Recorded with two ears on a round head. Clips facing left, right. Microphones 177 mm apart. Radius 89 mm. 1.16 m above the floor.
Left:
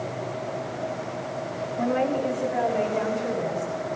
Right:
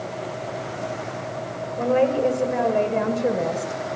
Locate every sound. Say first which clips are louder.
1.8 s a woman speaking: right 5 dB; 50° right (ahead or behind), 6 m; by 3.8 s 70° right (ahead or behind), 6 m